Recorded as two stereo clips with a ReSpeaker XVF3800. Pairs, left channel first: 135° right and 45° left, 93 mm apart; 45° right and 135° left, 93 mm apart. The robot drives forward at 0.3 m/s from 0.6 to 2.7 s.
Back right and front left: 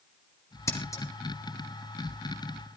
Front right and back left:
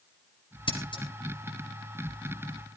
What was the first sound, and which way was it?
Scissors, 75° right.